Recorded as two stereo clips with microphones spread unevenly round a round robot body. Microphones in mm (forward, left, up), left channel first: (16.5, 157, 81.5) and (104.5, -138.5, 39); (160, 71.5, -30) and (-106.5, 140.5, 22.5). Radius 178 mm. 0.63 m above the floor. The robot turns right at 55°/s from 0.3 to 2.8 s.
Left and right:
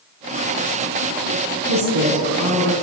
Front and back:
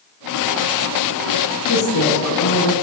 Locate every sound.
1.7 s a woman speaking: 65° right, 6.5 m; by 2.7 s 10° right, 6.5 m